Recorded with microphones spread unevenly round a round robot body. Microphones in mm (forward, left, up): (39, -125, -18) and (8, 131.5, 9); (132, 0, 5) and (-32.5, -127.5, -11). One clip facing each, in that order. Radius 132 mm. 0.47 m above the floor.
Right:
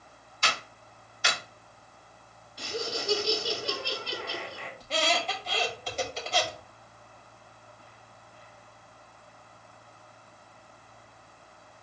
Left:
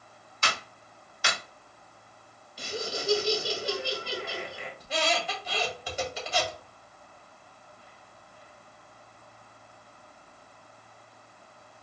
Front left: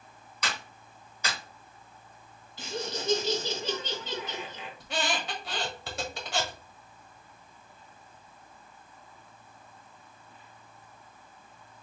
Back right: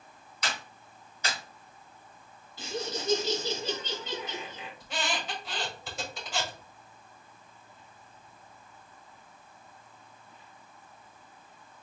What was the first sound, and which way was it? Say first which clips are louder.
A clap: even, even; 70° left.